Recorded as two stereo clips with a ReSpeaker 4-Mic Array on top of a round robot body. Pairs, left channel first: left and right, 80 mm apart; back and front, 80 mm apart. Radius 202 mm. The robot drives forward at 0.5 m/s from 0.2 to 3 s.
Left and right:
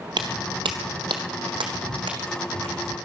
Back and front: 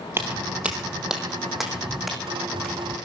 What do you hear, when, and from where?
0.2 s footsteps: 60° right, 0.8 m; by 3.0 s 90° right, 2.5 m